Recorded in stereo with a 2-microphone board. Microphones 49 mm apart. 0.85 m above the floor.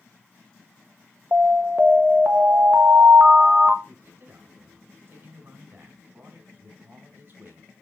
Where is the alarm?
45° right (ahead or behind), 0.9 m.